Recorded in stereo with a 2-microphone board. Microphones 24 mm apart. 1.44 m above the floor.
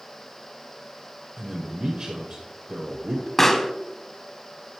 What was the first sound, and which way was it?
A man speaking, 50° right (ahead or behind).